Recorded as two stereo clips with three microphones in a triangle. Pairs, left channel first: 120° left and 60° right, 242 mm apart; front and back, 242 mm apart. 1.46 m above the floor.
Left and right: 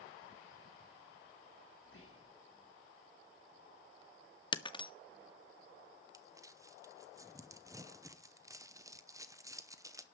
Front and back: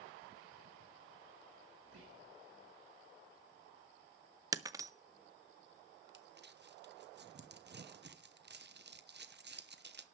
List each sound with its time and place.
1.8 s whispering: 155° left, 2.5 m
4.5 s breaking glass: 135° left, 0.6 m
6.1 s crumpling: 140° right, 0.9 m